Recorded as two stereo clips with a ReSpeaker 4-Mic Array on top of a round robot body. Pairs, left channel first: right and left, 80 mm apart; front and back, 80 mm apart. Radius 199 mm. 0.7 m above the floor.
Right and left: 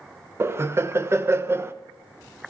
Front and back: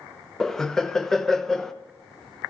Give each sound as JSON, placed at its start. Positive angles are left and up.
{"t": 0.4, "sound": "laughter", "azimuth_deg": 80, "distance_m": 0.7}